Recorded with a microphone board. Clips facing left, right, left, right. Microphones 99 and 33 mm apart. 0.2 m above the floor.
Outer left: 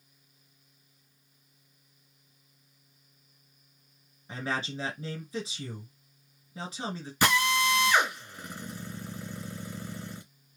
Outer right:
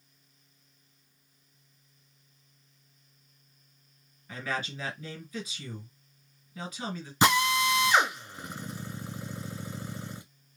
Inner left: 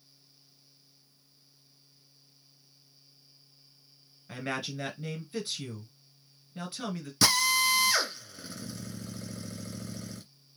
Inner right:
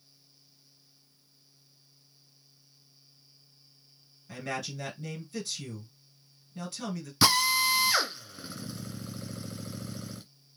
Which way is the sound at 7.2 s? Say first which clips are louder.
Outer right 1 dB, inner right 1 dB; 20° right (ahead or behind).